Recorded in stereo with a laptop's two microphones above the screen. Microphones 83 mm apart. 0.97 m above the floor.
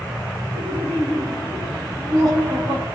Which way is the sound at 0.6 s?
65° right (ahead or behind).